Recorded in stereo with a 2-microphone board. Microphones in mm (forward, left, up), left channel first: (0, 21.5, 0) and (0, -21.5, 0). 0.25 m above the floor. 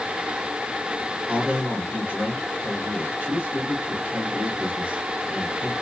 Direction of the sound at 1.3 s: 45° right (ahead or behind).